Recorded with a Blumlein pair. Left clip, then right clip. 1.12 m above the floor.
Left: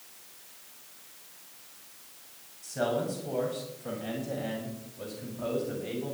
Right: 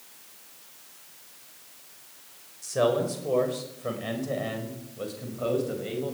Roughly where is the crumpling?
I don't hear crumpling.